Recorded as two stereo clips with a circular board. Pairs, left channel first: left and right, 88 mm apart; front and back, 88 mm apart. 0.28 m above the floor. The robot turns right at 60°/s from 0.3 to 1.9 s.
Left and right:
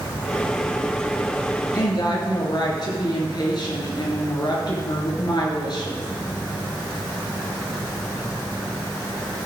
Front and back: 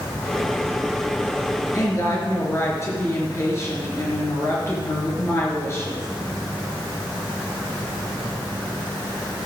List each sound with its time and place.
1.7 s a woman speaking: 45° left, 4.5 m; by 6.1 s 55° left, 4.5 m